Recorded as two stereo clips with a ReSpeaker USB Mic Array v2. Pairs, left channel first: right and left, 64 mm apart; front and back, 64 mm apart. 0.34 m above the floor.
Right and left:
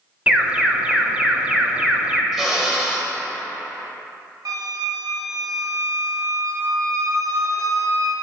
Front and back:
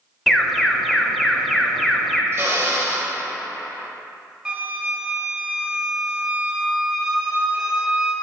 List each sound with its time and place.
0.3 s an alarm: 85° left, 0.5 m
2.3 s a drill: 175° left, 0.9 m
4.5 s a flute: 100° left, 1.0 m